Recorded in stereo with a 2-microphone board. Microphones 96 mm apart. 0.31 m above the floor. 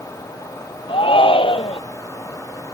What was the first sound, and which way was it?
A shout, 65° left (ahead or behind).